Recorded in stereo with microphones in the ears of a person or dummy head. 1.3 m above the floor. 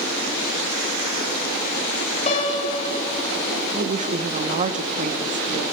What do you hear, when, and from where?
2.3 s a piano: 35° left (ahead or behind), 1.8 m
3.7 s a woman speaking: 35° right (ahead or behind), 0.9 m